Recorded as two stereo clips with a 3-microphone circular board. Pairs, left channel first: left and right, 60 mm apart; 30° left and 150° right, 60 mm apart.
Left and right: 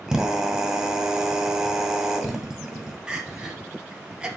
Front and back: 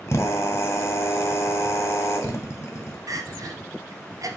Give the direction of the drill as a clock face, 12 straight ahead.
12 o'clock.